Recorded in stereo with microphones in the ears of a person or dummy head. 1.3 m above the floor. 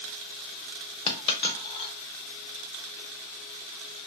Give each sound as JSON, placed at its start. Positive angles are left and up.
{"t": 1.1, "sound": "a dropped coin", "side_deg": 30, "distance_m": 0.8}